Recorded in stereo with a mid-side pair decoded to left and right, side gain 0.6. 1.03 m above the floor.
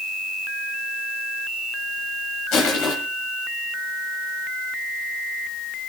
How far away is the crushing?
About 7.5 m.